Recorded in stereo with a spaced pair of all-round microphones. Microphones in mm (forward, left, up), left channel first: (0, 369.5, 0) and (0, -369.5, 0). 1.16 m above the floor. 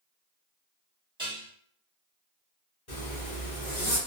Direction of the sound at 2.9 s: 45° left (ahead or behind).